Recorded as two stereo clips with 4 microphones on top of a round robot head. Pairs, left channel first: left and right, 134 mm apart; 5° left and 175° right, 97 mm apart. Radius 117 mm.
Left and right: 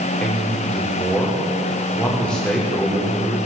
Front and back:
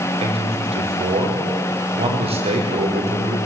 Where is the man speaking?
175° left, 6 m.